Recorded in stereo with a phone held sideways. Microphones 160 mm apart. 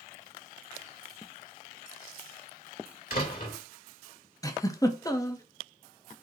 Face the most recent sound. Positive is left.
turn(degrees=20)  # may be behind; listen again after turning